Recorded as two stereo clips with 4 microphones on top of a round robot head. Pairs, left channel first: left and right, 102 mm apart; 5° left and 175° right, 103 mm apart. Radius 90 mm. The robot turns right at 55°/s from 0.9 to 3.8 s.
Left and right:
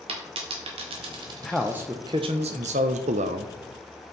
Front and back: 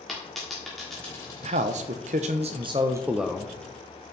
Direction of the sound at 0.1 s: 85° right.